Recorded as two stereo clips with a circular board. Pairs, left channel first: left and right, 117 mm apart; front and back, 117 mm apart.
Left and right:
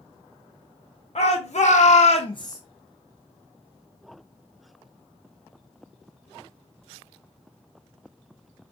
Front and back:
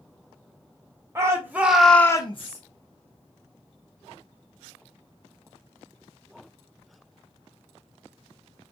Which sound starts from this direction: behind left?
A shout, at 1.1 s.